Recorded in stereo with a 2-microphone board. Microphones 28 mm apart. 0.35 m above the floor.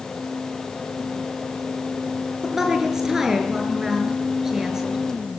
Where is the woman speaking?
15° right (ahead or behind), 6 m.